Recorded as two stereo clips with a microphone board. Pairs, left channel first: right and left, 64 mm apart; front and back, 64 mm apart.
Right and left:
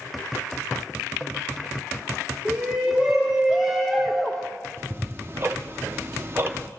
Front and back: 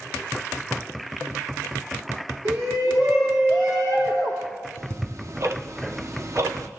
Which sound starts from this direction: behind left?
Ticking, at 4.8 s.